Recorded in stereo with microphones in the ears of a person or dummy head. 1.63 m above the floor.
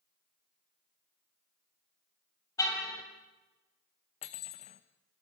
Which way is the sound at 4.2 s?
35° left (ahead or behind).